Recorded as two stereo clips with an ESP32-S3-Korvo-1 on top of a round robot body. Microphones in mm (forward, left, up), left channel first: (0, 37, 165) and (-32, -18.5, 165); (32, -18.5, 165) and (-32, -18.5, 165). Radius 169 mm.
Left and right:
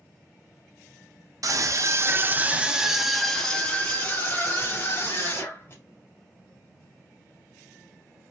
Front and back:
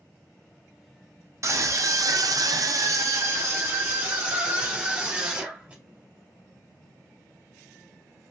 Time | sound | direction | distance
1.4 | a scream | 145° right | 1.2 m